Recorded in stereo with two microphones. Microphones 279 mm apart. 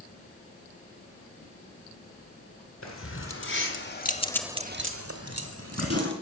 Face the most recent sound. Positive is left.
turn(degrees=-60)  # may be behind; listen again after turning